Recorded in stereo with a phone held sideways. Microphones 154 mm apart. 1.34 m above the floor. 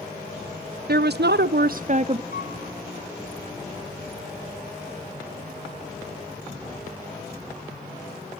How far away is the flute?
About 2.5 m.